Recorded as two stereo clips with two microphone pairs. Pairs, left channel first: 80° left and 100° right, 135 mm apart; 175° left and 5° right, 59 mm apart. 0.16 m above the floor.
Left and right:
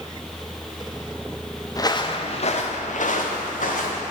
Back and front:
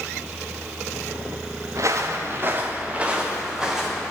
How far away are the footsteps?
About 1.0 m.